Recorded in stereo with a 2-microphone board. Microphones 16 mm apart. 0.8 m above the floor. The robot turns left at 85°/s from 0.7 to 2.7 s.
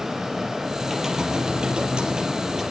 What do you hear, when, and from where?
0.8 s typing on a keyboard: 5° right, 4.5 m; by 2.6 s 160° right, 4.5 m